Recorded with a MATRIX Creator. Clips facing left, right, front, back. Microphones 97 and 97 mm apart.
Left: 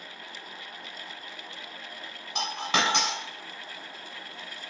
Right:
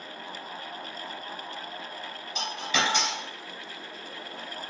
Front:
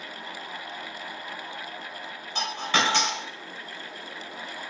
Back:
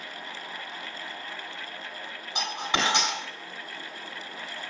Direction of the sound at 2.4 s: 105° left.